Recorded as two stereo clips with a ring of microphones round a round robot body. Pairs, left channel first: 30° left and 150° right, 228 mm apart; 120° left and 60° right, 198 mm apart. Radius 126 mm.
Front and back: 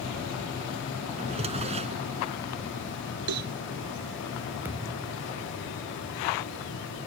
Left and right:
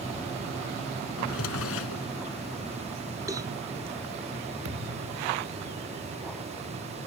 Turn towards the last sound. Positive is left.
turn(degrees=-70)